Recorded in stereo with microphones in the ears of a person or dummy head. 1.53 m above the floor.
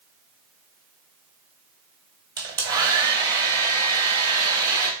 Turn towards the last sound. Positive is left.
turn(degrees=-20)  # may be behind; listen again after turning